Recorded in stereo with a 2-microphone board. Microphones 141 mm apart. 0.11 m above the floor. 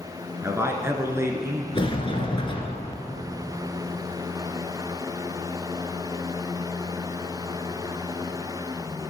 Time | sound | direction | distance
0.4 | a man speaking | 20° right (ahead or behind) | 1.3 m
1.7 | a sliding door | 35° left (ahead or behind) | 1.6 m